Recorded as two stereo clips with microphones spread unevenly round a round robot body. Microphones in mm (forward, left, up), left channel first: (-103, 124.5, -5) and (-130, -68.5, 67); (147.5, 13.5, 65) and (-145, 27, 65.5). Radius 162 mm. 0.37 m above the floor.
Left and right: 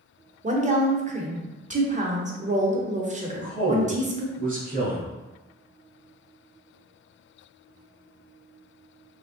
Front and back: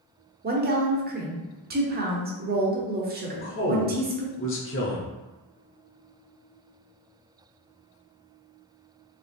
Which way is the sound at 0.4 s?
160° right.